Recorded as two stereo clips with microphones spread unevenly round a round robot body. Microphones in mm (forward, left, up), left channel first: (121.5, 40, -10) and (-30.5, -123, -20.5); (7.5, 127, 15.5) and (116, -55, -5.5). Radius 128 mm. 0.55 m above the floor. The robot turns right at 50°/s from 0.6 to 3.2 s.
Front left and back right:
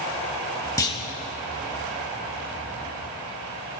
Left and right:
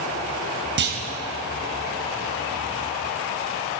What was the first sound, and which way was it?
A clunk, 30° right.